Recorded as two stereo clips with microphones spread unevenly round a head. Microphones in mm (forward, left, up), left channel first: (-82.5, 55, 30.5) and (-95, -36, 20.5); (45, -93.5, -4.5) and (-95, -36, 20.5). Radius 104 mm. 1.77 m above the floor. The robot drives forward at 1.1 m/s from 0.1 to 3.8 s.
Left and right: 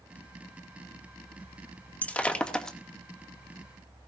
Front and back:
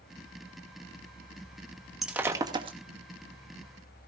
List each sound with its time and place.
2.0 s breaking glass: 100° left, 1.1 m; by 2.8 s 155° left, 1.4 m